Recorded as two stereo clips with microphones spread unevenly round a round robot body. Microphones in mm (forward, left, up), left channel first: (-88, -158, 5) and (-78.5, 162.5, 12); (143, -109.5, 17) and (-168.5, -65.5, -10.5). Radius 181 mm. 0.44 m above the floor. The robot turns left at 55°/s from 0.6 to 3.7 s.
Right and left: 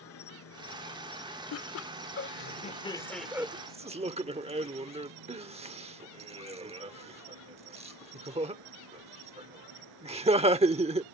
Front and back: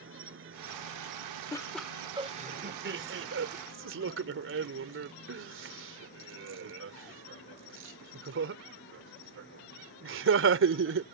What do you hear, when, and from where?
0.0 s an insect: 135° right; by 11.1 s 50° left
1.5 s laughter: 85° right; by 11.0 s 155° left